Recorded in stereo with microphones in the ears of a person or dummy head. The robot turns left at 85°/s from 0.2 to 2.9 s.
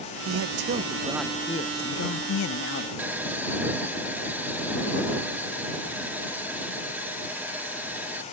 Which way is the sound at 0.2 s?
95° right.